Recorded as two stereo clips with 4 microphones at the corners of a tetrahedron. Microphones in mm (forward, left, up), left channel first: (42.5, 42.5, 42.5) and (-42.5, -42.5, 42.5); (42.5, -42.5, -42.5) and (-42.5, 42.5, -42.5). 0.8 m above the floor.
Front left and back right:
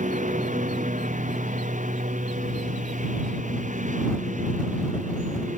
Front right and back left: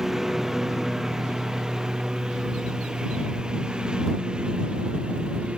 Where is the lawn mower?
140° right; by 5.6 s 145° right.